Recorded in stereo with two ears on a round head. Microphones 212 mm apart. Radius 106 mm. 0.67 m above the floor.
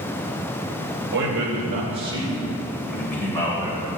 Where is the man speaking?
50° right (ahead or behind), 3 m; by 3.9 s 20° left (ahead or behind), 4 m.